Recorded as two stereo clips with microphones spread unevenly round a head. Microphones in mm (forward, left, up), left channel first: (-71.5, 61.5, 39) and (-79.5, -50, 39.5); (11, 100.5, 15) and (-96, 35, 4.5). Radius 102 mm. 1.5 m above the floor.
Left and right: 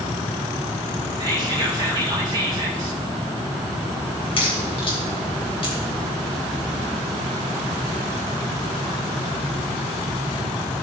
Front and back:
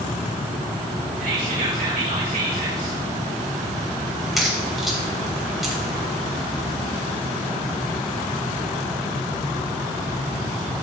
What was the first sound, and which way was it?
Whispering, 145° right.